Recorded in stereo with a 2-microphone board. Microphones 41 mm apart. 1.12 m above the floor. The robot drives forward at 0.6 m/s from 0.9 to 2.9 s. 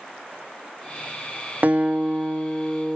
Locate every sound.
1.6 s a guitar: 45° right (ahead or behind), 0.7 m; by 3.0 s 20° right (ahead or behind), 1.3 m